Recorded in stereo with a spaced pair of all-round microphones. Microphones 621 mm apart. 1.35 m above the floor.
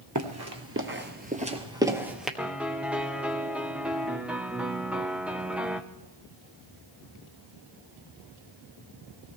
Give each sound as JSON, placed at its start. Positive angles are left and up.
{"t": 0.1, "sound": "running footsteps", "side_deg": -30, "distance_m": 1.4}
{"t": 2.4, "sound": "a piano", "side_deg": 0, "distance_m": 0.9}